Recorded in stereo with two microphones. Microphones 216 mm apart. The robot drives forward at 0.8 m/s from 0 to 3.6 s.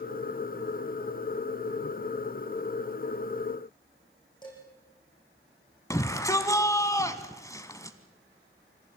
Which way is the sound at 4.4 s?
20° left (ahead or behind).